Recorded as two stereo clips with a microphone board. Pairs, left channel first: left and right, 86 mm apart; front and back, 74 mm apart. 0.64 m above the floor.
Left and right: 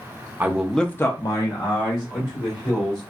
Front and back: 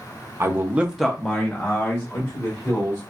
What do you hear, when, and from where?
0.4 s a man speaking: 150° right, 0.7 m; by 3.0 s 60° left, 2.5 m